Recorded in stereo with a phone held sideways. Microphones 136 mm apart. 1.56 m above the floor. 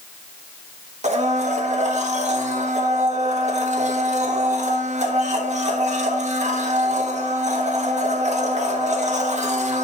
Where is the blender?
55° right (ahead or behind), 1.5 m.